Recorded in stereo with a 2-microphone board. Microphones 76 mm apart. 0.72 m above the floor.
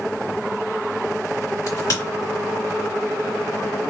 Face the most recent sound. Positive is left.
turn(degrees=55)  # may be behind; listen again after turning